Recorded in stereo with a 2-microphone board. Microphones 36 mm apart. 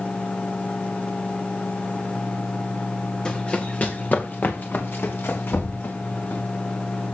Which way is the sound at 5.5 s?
70° left (ahead or behind).